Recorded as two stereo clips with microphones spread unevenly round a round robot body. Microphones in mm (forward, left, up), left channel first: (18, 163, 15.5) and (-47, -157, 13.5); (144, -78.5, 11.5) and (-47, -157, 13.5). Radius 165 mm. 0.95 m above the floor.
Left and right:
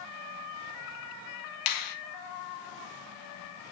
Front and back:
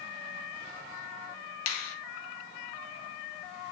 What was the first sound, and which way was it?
A finger snap, 50° left.